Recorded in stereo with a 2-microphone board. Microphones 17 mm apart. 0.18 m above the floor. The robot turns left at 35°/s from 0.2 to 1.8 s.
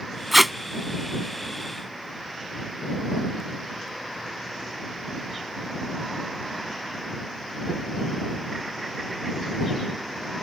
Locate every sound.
0.3 s tape being pulled: 5° right (ahead or behind); by 0.5 s centre (ahead or behind)